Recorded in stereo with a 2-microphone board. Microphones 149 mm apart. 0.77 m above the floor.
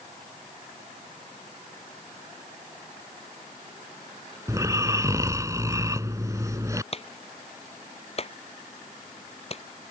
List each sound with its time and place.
4.5 s snoring: 20° right (ahead or behind)
6.9 s a clap: 45° left (ahead or behind)